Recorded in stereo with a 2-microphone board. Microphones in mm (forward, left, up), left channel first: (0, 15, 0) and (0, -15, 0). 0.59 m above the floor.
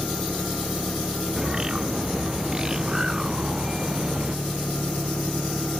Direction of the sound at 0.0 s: 80° left.